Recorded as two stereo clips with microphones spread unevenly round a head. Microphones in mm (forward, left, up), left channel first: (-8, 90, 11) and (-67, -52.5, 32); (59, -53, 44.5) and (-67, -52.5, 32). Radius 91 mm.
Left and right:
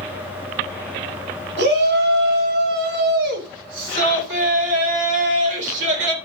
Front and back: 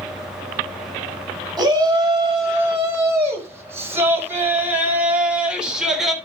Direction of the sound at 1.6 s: 115° right.